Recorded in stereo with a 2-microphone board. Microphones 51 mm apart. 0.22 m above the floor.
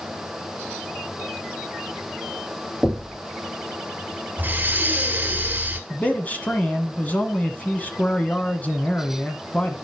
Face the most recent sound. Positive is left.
turn(degrees=30)  # may be behind; listen again after turning